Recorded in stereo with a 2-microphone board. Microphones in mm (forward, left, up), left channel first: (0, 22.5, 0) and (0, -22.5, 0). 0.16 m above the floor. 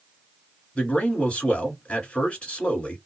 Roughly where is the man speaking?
Left.